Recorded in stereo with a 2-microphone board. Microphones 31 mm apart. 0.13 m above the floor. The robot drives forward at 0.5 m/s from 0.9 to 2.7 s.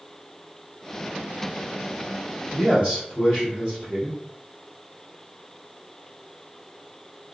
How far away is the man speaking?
About 1.9 m.